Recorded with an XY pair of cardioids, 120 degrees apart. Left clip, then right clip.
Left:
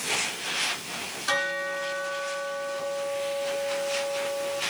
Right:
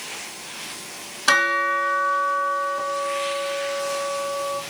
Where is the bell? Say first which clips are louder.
Right 9 dB; 65° right, 2.5 m.